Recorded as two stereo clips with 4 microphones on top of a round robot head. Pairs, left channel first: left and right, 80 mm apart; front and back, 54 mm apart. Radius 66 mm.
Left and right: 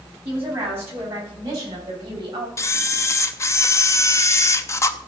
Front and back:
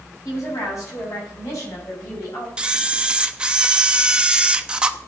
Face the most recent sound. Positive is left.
turn(degrees=115)